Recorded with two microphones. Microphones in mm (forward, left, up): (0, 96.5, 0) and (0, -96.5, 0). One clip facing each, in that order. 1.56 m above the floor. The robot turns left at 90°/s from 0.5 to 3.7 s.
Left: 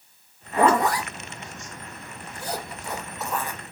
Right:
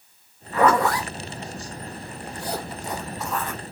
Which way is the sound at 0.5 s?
30° left (ahead or behind).